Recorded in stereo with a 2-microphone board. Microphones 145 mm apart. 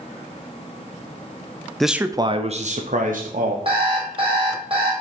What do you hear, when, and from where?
1.8 s a man speaking: centre (ahead or behind), 0.7 m; by 3.5 s 80° right, 1.4 m
3.6 s an alarm clock: 40° right (ahead or behind), 3.5 m